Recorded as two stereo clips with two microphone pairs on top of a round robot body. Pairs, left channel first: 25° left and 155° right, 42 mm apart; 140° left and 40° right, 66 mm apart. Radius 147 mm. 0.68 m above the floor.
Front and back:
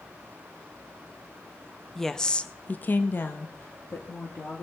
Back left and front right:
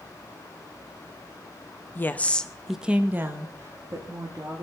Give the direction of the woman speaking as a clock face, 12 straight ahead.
8 o'clock.